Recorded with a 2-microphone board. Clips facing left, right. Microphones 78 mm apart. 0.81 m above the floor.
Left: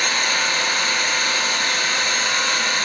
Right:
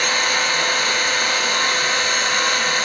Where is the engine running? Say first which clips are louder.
Right 2 dB; 70° right (ahead or behind), 2.5 m.